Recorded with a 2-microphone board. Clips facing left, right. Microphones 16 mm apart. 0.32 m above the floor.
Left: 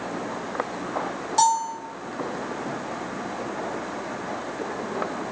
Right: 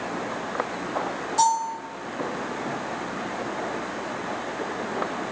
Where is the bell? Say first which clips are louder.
Left 1 dB; 30° left (ahead or behind), 1.6 m.